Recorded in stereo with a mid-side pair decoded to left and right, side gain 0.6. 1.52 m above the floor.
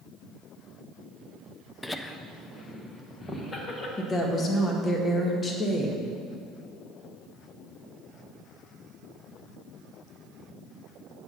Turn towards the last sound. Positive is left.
turn(degrees=30)